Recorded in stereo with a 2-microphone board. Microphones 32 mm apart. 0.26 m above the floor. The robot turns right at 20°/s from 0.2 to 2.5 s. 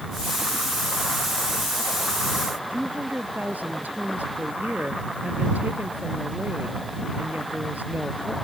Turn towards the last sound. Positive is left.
turn(degrees=-60)  # may be behind; listen again after turning